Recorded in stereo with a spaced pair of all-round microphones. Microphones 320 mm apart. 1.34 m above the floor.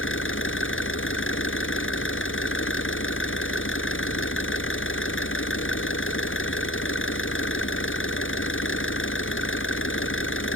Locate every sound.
0.0 s an engine running: 40° left (ahead or behind)